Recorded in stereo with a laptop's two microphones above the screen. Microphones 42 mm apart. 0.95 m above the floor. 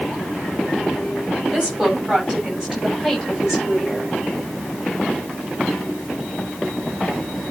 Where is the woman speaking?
20° right (ahead or behind), 6 m; by 4.2 s 5° right (ahead or behind), 5.5 m.